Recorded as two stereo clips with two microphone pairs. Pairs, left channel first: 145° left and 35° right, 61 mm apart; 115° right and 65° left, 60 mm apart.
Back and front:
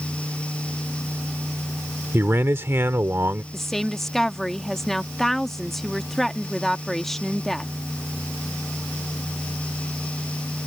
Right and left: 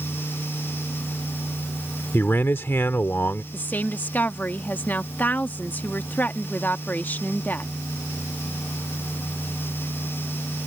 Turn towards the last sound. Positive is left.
turn(degrees=-135)